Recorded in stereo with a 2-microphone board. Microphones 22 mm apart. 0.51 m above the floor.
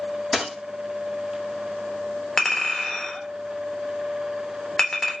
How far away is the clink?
About 0.8 m.